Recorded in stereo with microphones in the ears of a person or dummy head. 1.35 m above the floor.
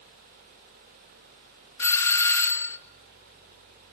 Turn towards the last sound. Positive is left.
turn(degrees=15)  # may be behind; listen again after turning